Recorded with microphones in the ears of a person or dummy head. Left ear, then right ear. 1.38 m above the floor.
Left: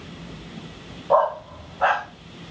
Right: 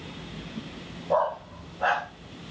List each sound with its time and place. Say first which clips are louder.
1.1 s a dog barking: left 6 dB; 15° left (ahead or behind), 0.8 m